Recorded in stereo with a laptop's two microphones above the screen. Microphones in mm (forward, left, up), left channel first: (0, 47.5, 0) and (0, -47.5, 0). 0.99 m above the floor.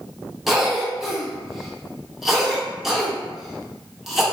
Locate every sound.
0.5 s a cough: centre (ahead or behind), 0.8 m